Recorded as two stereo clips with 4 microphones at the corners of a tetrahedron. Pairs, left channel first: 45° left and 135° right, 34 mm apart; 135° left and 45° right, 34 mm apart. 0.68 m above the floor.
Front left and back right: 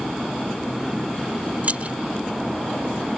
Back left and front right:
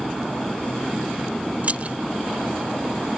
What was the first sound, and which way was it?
Keys jangling, 90° right.